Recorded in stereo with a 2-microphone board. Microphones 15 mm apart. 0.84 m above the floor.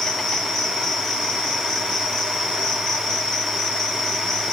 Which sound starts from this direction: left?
An insect, at 0.0 s.